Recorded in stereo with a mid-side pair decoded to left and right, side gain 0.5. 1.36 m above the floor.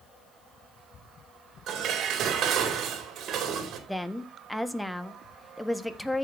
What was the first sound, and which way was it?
Dishes clattering, 65° right.